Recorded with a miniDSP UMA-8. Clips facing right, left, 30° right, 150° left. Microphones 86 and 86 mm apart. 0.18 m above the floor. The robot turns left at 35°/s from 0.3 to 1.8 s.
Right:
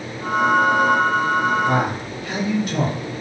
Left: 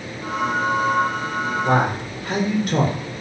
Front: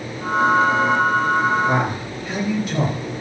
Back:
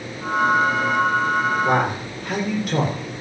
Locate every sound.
1.6 s a man speaking: 125° left, 8 m; by 3.0 s 120° left, 8 m